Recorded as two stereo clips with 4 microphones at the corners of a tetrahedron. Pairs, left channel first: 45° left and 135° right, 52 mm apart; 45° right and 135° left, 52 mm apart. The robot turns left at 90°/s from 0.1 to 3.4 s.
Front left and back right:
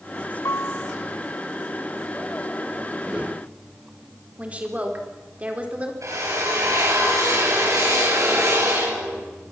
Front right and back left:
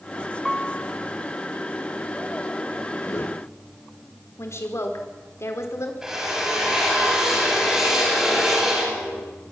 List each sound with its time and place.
0.5 s a piano: 50° left, 1.0 m; by 0.9 s 10° left, 1.0 m
3.0 s a whoosh: 55° right, 2 m; by 3.5 s 90° right, 2 m
4.4 s a woman speaking: 70° right, 4.5 m
6.0 s a drill: 145° right, 9 m